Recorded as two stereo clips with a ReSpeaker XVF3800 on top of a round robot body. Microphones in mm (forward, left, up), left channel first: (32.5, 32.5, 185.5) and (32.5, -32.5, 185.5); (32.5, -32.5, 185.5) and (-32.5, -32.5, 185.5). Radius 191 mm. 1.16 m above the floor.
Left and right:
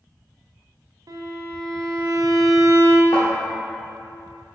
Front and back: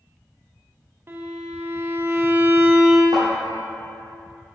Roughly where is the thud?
Behind left.